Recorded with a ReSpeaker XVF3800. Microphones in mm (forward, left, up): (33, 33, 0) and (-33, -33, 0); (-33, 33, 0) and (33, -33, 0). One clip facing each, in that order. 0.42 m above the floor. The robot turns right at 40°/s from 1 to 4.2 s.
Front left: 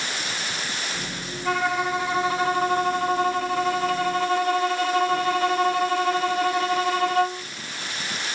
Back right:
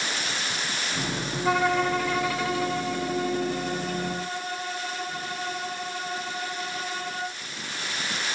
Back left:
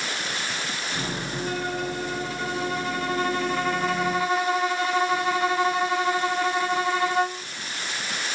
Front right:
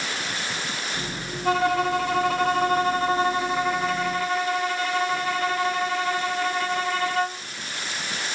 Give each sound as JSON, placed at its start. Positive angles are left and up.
{"t": 1.4, "sound": "a violin", "azimuth_deg": -50, "distance_m": 1.3}